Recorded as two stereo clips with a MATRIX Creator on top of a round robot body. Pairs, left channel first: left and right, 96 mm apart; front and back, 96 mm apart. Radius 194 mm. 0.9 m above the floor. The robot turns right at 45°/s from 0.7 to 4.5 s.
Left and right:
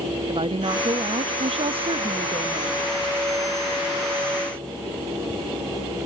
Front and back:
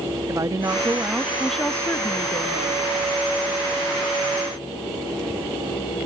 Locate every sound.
0.3 s a woman speaking: 125° right; by 2.9 s 25° right